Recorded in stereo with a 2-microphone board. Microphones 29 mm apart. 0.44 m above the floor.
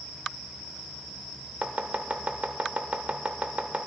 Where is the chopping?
50° right (ahead or behind), 0.6 m.